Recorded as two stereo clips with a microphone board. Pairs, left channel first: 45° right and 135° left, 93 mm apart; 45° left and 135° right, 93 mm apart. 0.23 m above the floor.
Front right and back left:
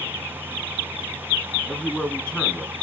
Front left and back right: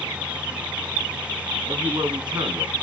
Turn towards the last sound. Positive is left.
turn(degrees=-125)